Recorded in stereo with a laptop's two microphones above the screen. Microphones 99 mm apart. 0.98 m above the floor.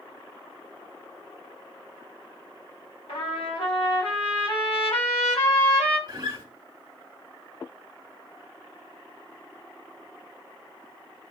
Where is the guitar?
45° right (ahead or behind), 1.0 m.